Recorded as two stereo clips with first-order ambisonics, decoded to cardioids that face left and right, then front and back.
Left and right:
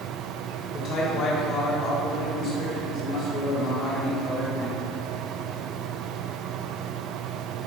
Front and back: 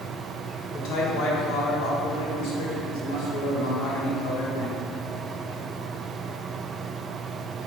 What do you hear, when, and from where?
0.7 s a man speaking: 35° left, 1.5 m